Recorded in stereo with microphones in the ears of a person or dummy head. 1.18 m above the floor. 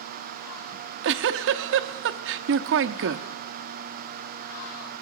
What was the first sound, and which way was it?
A giggle, 65° right (ahead or behind).